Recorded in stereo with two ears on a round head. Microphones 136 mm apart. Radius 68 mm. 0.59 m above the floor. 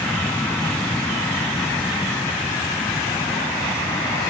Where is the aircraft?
5° left (ahead or behind); by 4.3 s 20° left (ahead or behind).